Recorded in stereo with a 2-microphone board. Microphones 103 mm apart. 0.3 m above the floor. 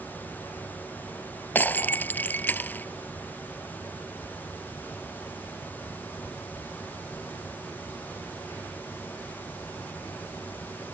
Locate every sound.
1.6 s breaking glass: 20° left (ahead or behind)